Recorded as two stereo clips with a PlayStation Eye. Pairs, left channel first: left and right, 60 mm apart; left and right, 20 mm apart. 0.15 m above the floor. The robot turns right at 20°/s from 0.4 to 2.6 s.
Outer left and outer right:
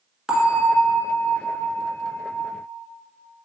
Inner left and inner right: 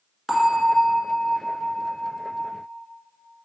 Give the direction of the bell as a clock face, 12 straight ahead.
1 o'clock.